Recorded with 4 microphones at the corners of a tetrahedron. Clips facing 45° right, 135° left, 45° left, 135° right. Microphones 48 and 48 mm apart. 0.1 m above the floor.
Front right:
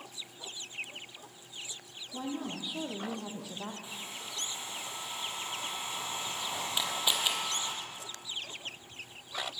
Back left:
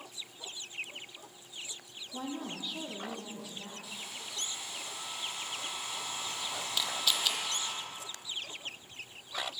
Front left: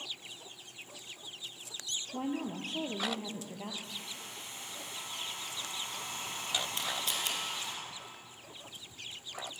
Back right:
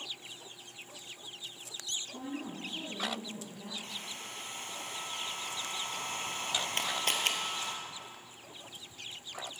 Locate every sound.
2.1 s a woman speaking: 50° left, 2.5 m; by 3.7 s straight ahead, 2.5 m
3.8 s a hair dryer: 105° right, 2.5 m
6.8 s a camera shutter: 110° right, 1.5 m